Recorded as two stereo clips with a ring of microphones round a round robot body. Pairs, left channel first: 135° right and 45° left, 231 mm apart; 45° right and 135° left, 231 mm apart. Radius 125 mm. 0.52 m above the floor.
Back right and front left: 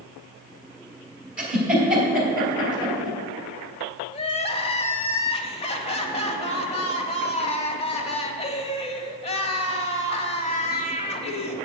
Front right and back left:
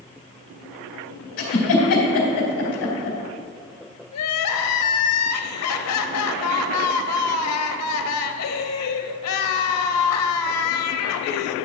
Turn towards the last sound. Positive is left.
turn(degrees=-70)